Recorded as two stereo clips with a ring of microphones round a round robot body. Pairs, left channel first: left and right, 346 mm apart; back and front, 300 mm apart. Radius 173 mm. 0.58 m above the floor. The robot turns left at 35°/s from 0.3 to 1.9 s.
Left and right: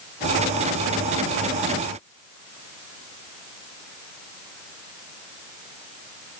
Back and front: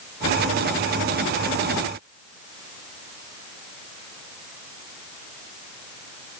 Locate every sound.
Only background noise.